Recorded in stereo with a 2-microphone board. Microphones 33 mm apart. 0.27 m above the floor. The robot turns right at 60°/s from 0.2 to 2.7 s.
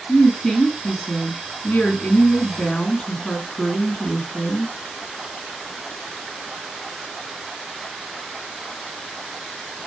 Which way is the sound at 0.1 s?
15° right.